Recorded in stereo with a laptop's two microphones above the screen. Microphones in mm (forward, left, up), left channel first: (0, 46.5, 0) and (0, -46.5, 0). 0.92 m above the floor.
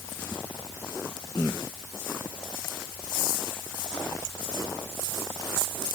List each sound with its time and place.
Only background noise.